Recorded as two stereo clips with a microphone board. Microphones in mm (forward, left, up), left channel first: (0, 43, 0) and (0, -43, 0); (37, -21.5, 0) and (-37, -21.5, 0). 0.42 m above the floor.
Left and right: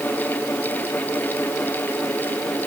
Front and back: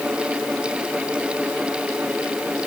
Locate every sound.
Only background noise.